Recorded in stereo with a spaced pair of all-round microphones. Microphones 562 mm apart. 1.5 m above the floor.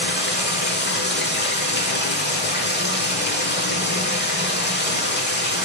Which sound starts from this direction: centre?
Running water, at 0.0 s.